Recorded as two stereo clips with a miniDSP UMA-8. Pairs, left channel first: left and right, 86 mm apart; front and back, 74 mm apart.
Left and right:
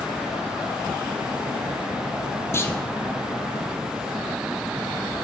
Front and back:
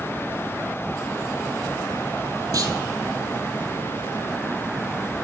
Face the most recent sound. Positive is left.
turn(degrees=150)